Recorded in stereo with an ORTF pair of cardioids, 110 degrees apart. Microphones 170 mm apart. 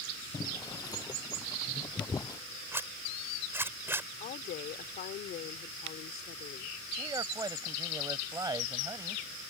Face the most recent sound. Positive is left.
turn(degrees=-20)